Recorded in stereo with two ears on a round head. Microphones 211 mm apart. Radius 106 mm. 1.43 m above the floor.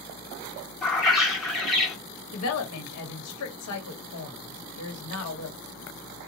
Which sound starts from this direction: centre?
A bird, at 0.8 s.